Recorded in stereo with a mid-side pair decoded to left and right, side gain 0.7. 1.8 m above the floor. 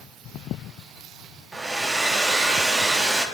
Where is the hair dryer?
15° right, 1.2 m.